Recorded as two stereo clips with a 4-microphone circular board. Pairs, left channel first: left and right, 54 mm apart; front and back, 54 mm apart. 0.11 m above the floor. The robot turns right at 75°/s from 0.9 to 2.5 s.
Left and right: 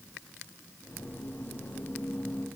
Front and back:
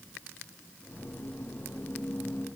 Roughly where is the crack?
No crack in this recording.